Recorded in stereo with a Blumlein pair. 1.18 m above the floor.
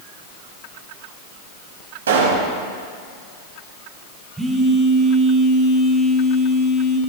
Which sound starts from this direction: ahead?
A phone buzzing, at 4.4 s.